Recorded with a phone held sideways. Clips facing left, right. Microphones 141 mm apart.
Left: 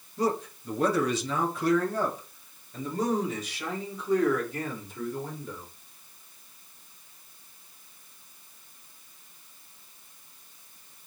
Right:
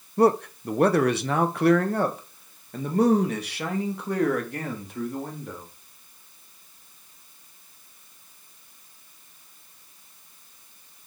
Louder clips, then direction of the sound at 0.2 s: Right 8 dB; 65° right (ahead or behind).